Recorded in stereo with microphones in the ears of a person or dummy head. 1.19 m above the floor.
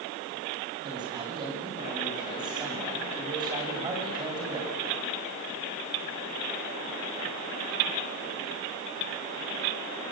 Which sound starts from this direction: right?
A man speaking, at 0.8 s.